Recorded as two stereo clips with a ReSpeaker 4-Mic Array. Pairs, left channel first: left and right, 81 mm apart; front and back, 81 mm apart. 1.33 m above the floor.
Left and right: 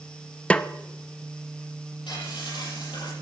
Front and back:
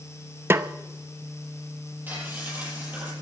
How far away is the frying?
About 10 m.